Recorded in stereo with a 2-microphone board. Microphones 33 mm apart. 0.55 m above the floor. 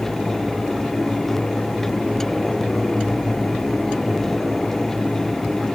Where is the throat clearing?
No throat clearing in this recording.